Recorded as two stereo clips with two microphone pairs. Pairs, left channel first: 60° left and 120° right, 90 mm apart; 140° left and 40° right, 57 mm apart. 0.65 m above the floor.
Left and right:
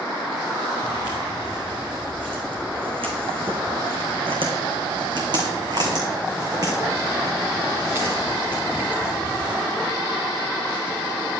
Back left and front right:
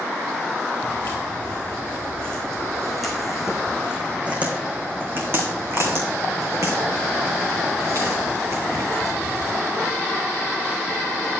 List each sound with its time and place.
0.8 s footsteps: 165° right, 3.5 m; by 9.5 s 55° right, 5 m